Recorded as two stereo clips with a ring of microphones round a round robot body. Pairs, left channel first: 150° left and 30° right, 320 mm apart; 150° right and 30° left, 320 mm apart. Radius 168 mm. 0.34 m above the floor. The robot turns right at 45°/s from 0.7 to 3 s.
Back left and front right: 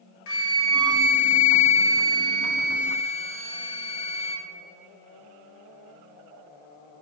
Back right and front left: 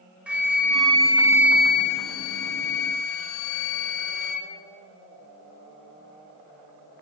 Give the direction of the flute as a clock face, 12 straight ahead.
8 o'clock.